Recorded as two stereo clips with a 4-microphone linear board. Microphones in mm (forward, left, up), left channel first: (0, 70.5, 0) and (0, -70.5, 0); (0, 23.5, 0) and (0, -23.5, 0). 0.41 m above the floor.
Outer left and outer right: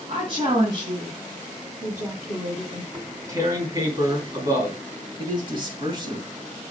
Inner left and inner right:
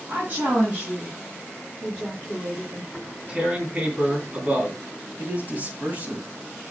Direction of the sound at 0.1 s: 45° right (ahead or behind).